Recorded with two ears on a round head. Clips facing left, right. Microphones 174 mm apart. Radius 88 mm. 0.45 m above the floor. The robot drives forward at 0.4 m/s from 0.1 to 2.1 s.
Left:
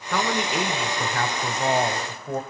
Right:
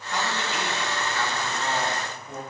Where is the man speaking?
50° left (ahead or behind), 1.5 m; by 2.4 s 40° left (ahead or behind), 1.7 m.